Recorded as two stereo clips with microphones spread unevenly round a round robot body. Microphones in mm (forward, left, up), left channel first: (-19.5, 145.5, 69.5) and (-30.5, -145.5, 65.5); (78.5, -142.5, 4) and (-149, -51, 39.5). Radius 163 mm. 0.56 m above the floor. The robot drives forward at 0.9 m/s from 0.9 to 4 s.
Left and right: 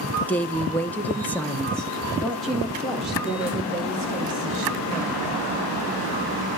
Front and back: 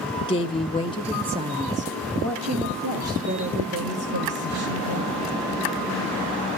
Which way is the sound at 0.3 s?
5° left.